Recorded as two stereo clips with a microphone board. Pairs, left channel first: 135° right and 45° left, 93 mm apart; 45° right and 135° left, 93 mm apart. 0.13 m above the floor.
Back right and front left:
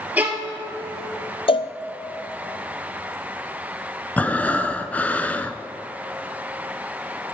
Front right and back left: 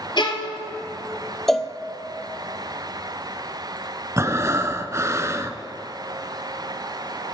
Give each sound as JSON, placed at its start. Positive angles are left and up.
{"t": 0.2, "sound": "a violin", "azimuth_deg": -25, "distance_m": 1.4}
{"t": 1.5, "sound": "a cowbell", "azimuth_deg": -130, "distance_m": 0.6}
{"t": 4.2, "sound": "breathing", "azimuth_deg": 165, "distance_m": 0.6}